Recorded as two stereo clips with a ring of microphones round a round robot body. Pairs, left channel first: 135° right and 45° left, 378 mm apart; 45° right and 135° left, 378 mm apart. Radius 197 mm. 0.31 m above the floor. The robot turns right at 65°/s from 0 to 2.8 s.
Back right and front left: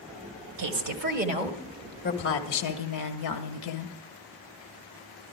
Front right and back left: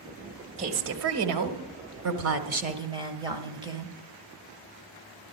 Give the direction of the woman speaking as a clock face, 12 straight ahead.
10 o'clock.